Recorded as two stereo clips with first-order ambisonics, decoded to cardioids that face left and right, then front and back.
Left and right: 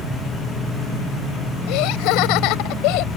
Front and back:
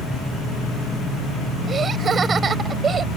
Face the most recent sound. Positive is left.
turn(degrees=110)